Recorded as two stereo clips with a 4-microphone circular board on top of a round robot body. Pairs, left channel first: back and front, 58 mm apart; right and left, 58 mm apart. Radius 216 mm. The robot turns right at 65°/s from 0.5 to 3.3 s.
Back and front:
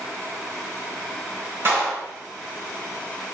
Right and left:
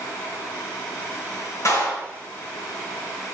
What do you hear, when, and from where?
1.6 s a clap: 50° right, 4.5 m; by 2.0 s 25° right, 4.5 m